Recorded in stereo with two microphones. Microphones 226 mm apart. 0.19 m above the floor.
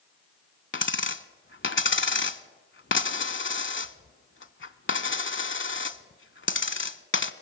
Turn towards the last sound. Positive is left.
turn(degrees=60)  # may be behind; listen again after turning